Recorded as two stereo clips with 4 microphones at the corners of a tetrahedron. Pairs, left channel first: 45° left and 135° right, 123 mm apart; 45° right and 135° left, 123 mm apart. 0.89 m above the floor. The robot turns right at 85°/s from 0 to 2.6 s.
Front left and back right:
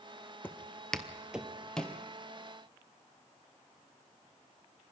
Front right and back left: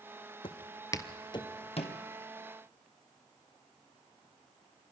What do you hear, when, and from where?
0.4 s footsteps: 25° right, 1.2 m